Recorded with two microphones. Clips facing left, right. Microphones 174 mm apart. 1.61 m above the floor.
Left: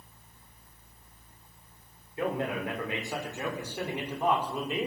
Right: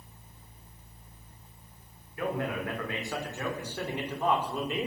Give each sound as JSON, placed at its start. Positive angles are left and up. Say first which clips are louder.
{"t": 2.2, "sound": "a man speaking", "louder": "left 1 dB", "side_deg": 25, "distance_m": 6.0}